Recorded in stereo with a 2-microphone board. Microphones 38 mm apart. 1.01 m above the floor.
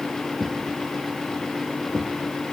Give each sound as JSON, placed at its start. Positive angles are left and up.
{"t": 0.4, "sound": "a thud", "side_deg": 35, "distance_m": 4.5}